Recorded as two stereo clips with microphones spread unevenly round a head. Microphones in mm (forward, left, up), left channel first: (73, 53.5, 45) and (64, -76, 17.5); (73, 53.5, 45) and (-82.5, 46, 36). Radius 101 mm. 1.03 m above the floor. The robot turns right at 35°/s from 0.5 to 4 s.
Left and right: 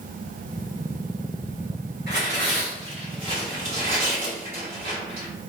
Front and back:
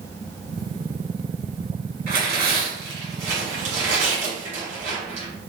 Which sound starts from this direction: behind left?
Tearing paper, at 2.1 s.